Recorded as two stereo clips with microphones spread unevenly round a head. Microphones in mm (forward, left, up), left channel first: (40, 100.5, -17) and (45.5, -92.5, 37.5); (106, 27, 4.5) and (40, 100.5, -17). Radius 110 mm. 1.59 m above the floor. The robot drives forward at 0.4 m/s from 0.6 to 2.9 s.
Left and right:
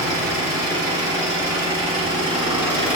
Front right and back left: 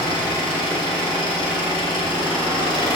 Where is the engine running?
165° right, 3 m; by 3.0 s 170° right, 4 m.